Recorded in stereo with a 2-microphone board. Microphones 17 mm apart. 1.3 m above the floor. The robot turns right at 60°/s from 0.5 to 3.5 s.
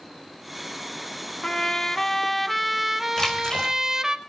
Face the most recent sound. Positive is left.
turn(degrees=40)  # may be behind; listen again after turning